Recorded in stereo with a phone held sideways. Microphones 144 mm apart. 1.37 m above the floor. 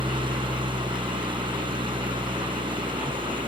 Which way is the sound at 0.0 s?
35° right (ahead or behind).